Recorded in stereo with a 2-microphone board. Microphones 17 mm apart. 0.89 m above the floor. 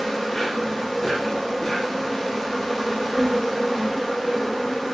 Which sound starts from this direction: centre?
An insect, at 0.0 s.